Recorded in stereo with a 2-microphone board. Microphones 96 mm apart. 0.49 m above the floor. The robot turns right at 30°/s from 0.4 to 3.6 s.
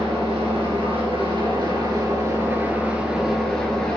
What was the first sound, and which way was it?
An engine running, 90° right.